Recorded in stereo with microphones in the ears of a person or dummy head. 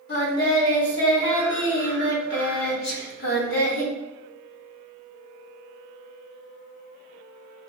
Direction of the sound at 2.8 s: 70° left (ahead or behind).